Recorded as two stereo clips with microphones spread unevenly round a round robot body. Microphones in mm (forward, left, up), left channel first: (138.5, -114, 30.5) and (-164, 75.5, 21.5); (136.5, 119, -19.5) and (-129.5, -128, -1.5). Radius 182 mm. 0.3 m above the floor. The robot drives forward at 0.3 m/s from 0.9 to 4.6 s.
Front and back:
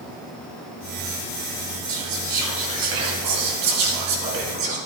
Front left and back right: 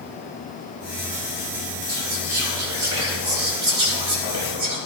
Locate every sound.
1.9 s whispering: 175° left, 3 m; by 4.8 s straight behind, 4 m